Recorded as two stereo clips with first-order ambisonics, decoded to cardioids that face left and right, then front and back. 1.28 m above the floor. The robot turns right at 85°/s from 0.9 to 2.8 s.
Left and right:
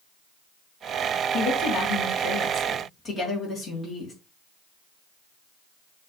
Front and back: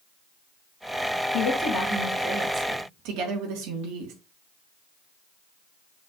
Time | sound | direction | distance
1.3 | a woman speaking | 40° left | 1.5 m